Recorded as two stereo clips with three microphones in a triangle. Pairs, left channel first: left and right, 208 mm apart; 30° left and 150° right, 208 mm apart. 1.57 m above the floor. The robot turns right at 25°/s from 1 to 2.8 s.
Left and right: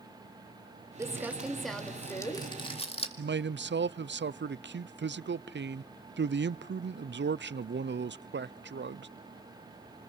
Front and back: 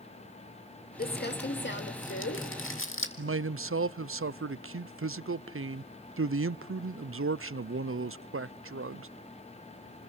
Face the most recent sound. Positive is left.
turn(degrees=-130)